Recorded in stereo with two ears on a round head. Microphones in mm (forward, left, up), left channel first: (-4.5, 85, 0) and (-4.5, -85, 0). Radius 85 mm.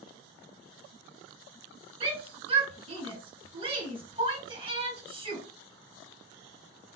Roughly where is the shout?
Right.